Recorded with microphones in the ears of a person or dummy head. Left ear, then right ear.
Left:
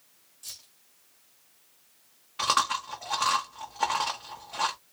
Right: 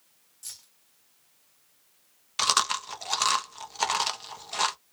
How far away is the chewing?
About 1.0 m.